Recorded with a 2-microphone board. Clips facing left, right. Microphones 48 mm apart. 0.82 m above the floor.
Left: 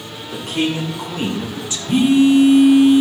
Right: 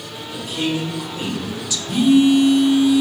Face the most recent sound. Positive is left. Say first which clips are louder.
# left 1 dB
turn(degrees=65)  # may be behind; listen again after turning